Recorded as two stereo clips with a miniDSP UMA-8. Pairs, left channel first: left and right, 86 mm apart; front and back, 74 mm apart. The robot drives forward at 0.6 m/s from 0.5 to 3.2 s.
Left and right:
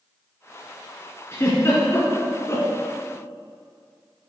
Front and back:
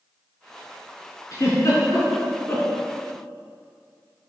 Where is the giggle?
35° left, 3.5 m; by 2.7 s 50° left, 3 m.